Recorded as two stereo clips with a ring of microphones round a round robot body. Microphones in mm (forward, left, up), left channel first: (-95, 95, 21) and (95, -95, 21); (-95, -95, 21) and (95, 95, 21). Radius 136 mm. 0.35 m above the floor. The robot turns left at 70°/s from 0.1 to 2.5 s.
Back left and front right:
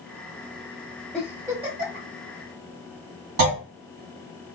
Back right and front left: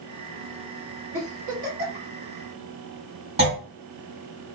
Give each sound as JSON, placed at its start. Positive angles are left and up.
{"t": 1.1, "sound": "a giggle", "azimuth_deg": 50, "distance_m": 1.9}
{"t": 3.4, "sound": "a clunk", "azimuth_deg": -20, "distance_m": 1.8}